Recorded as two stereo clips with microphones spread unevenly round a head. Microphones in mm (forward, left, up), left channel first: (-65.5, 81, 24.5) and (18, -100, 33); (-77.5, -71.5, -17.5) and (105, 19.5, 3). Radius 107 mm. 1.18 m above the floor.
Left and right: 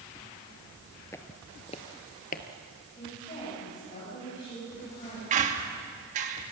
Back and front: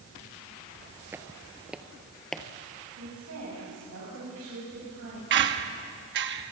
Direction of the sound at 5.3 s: 5° right.